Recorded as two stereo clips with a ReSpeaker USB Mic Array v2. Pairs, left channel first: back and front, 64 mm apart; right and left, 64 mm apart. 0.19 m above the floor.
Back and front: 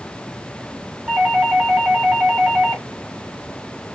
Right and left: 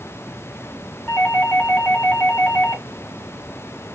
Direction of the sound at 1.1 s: 30° right.